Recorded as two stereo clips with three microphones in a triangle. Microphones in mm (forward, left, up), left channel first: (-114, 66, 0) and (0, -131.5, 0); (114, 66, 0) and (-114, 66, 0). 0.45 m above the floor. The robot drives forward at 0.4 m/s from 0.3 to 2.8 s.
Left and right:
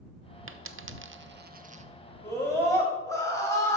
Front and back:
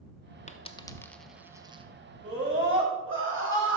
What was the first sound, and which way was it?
A dropped coin, 50° right.